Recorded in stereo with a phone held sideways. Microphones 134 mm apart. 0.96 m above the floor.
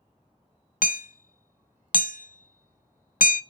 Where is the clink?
I don't hear a clink.